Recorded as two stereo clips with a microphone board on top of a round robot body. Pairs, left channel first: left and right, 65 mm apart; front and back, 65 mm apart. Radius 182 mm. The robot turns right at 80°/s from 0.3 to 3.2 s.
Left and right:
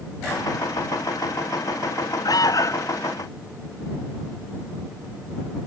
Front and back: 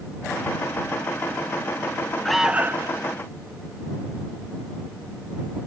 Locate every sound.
2.2 s an alarm: 85° left; by 2.9 s 140° left